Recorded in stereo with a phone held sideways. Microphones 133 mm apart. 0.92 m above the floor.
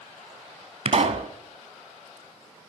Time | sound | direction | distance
0.8 | a pop | 55° right (ahead or behind) | 1.4 m